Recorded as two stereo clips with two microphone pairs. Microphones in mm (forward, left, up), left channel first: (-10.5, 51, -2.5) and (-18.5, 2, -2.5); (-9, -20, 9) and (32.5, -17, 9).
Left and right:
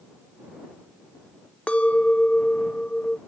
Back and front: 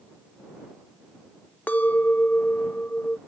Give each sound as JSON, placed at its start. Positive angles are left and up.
{"t": 1.7, "sound": "a clink", "azimuth_deg": 145}